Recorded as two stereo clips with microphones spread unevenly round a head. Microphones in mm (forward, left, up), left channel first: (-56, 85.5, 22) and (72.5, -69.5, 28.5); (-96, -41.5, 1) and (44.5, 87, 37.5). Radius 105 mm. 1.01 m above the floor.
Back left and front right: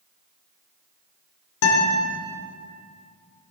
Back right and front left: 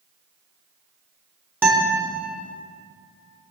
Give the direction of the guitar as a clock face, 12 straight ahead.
8 o'clock.